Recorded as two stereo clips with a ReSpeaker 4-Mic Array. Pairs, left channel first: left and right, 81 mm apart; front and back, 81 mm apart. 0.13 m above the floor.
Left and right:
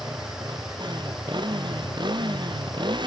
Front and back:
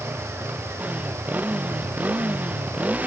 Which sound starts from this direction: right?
A motorcycle, at 0.0 s.